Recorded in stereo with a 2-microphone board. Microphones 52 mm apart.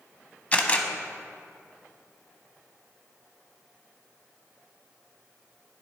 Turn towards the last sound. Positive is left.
turn(degrees=25)  # may be behind; listen again after turning